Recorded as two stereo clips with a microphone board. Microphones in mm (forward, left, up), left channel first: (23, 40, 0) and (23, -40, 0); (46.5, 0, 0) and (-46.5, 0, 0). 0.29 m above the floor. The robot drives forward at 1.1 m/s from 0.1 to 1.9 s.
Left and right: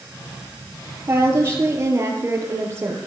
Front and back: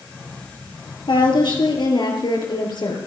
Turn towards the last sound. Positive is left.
turn(degrees=-35)